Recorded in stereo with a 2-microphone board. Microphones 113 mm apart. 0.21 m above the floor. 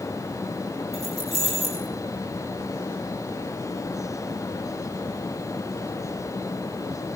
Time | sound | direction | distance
0.9 | keys jangling | 80° right | 6 m